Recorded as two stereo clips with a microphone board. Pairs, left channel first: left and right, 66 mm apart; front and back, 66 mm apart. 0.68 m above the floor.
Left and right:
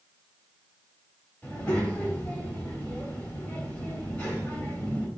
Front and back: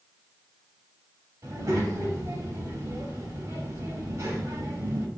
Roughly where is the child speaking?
Behind.